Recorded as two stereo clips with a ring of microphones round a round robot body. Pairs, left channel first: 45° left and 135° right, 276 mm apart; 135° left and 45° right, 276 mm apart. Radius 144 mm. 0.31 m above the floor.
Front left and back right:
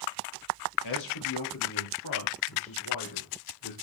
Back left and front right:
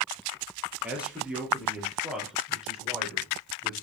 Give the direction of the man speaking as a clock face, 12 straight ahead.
11 o'clock.